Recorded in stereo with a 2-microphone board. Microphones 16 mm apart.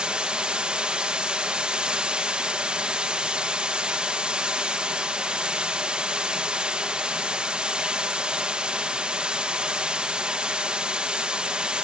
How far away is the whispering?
No whispering in this recording.